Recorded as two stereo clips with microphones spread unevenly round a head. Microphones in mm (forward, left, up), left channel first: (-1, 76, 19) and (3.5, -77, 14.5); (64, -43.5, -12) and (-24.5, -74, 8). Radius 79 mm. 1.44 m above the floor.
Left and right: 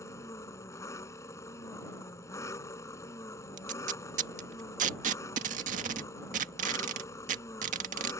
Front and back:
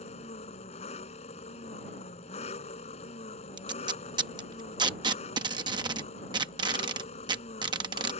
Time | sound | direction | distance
0.0 | an engine running | 20° left | ?
3.6 | tape being pulled | 130° right | ?